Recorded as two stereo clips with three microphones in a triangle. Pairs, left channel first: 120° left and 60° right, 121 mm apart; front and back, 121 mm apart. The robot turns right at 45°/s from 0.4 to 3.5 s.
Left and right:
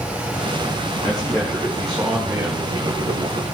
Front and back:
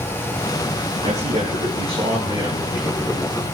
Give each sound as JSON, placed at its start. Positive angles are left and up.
{"t": 1.0, "sound": "a man speaking", "azimuth_deg": 170, "distance_m": 8.0}